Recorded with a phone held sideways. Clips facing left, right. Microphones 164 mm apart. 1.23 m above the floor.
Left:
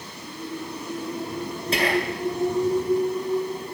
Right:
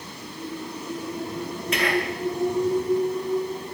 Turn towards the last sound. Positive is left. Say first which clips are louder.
# left 1 dB
turn(degrees=35)  # may be behind; listen again after turning